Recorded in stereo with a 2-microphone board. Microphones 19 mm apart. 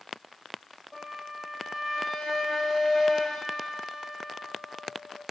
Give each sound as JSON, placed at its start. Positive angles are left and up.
{"t": 0.9, "sound": "a flute", "side_deg": 15, "distance_m": 3.0}